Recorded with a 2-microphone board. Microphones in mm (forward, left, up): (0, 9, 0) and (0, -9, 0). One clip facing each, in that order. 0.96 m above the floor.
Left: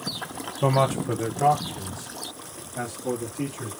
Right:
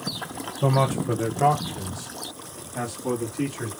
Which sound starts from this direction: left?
A man speaking, at 0.6 s.